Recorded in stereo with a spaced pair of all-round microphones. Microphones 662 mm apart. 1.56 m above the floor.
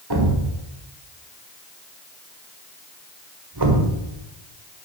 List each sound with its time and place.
0.1 s a thud: 35° right (ahead or behind), 1.5 m